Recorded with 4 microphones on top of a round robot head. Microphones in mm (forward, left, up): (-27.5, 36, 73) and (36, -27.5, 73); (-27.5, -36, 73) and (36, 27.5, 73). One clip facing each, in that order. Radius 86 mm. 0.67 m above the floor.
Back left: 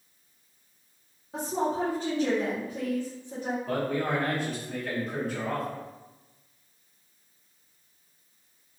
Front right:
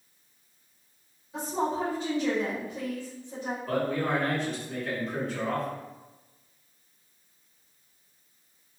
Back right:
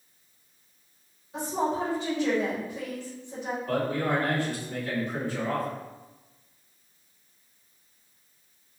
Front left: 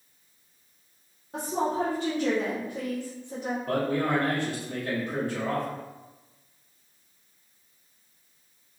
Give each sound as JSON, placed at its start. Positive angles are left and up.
{"t": 1.3, "sound": "a woman speaking", "azimuth_deg": 90, "distance_m": 1.1}
{"t": 3.7, "sound": "a man speaking", "azimuth_deg": 50, "distance_m": 1.9}